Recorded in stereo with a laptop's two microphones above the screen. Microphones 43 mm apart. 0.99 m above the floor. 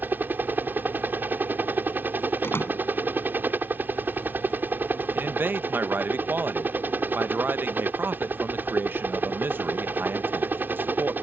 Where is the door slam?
60° left (ahead or behind).